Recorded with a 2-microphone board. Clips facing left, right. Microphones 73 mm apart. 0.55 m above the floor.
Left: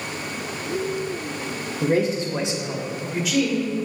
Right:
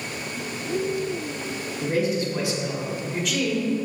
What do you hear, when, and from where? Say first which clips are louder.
1.8 s a man speaking: left 3 dB; 35° left (ahead or behind), 0.9 m; by 3.7 s 5° right (ahead or behind), 1.7 m